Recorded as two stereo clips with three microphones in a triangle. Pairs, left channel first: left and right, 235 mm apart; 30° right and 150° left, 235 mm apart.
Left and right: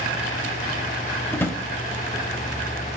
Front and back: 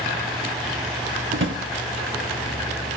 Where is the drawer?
165° left, 0.6 m.